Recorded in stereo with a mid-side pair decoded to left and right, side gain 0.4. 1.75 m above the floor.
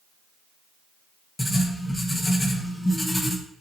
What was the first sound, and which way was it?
Writing, 15° left.